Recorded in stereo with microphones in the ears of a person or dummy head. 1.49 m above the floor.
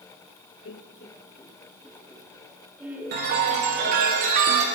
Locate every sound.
0.7 s laughter: 60° left (ahead or behind), 0.6 m; by 4.1 s 15° right (ahead or behind), 3 m
3.1 s a chime: 50° right (ahead or behind), 1.2 m